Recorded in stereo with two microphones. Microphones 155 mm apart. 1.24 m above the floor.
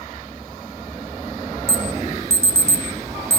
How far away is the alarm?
About 2 m.